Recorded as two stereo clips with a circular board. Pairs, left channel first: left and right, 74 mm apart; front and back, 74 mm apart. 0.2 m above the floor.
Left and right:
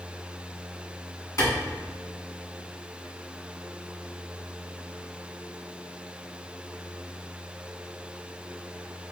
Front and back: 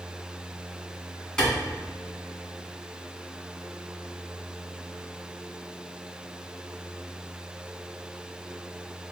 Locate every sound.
1.4 s a clap: 75° left, 1.5 m